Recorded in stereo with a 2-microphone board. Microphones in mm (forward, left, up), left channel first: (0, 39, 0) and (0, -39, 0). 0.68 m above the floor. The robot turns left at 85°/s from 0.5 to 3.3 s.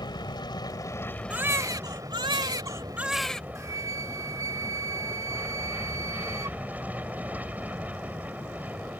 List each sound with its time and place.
0.0 s an aircraft: 80° left; by 9.0 s 160° right
1.3 s a baby crying: 20° right; by 3.5 s 170° left
3.5 s a flute: 45° right (ahead or behind)